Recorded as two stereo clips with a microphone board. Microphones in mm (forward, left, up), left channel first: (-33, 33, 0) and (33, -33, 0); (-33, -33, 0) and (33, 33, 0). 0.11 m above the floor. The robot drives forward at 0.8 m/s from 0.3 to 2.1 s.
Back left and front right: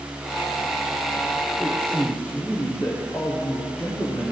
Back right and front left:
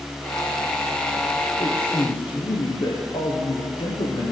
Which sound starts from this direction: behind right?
A man speaking, at 1.6 s.